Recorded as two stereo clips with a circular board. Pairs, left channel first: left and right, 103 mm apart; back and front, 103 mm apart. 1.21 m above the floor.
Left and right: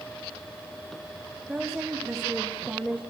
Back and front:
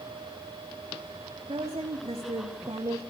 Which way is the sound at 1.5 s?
5° right.